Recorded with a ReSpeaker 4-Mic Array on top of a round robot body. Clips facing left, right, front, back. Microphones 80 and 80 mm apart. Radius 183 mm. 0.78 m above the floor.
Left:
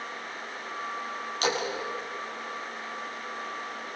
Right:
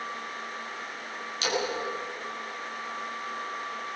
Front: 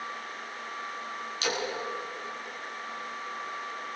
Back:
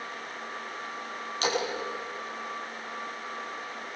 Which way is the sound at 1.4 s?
130° left.